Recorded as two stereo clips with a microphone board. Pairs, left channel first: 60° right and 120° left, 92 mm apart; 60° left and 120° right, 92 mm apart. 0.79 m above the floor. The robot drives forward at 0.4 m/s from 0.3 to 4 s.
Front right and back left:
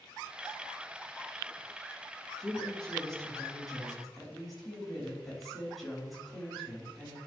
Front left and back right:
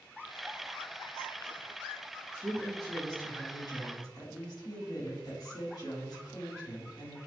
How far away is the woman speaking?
About 2.5 m.